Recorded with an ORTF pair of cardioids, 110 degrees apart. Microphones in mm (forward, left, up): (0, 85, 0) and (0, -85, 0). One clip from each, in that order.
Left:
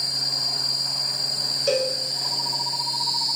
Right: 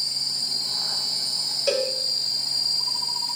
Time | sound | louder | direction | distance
1.7 | a cowbell | left 1 dB | 10° right | 1.2 m